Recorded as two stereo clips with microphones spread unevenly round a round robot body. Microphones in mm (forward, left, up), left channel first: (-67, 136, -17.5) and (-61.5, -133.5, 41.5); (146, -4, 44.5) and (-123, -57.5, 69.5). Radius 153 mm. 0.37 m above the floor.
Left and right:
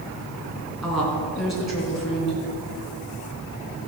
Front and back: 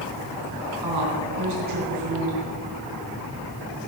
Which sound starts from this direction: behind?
A woman speaking, at 0.8 s.